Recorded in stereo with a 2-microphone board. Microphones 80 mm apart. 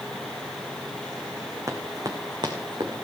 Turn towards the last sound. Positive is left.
turn(degrees=-75)  # may be behind; listen again after turning